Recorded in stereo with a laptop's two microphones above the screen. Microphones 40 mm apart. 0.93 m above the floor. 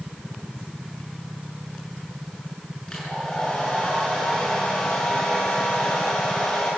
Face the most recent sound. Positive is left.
turn(degrees=25)  # may be behind; listen again after turning